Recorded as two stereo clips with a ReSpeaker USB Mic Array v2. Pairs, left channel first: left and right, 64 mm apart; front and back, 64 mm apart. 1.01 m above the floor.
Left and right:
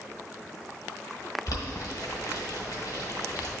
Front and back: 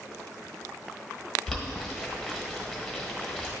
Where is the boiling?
90° left, 1.8 m.